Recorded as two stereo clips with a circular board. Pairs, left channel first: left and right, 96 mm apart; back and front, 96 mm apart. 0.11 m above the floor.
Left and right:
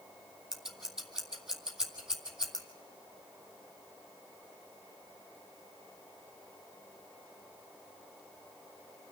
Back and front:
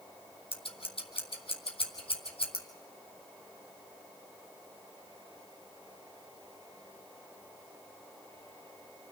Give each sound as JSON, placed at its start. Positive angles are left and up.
{"t": 0.5, "sound": "scissors", "azimuth_deg": -175, "distance_m": 3.0}